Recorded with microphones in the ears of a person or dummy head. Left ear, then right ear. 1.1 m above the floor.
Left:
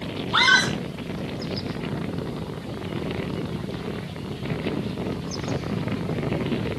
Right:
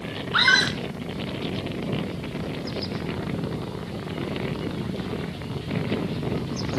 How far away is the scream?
About 3 m.